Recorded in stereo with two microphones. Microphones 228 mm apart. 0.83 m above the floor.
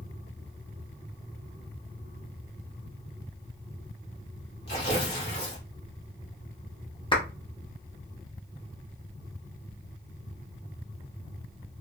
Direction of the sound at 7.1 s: 20° left (ahead or behind).